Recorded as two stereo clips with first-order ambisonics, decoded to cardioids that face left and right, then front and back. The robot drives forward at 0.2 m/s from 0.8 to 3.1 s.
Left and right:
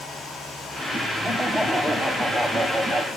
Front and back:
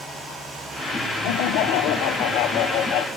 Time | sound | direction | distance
1.2 | laughter | 10° right | 0.8 m